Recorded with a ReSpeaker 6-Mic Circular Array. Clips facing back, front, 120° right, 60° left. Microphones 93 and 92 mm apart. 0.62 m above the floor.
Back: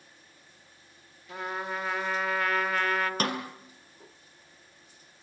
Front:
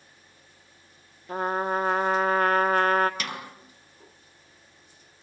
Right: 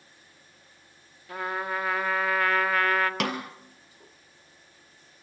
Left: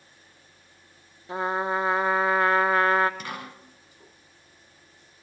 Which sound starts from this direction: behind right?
A snare drum, at 3.2 s.